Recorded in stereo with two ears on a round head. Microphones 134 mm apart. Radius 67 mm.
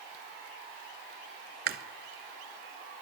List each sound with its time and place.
1.7 s chewing: 70° right (ahead or behind), 1.0 m